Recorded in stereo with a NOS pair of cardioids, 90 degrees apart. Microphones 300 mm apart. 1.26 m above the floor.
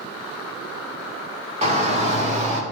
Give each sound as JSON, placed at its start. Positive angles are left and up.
{"t": 1.6, "sound": "a shout", "azimuth_deg": -25, "distance_m": 4.0}